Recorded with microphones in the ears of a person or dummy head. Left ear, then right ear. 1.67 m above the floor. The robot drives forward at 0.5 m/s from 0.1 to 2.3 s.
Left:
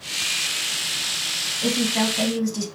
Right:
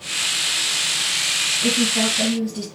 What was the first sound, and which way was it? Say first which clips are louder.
A woman speaking: right 3 dB; 75° left (ahead or behind).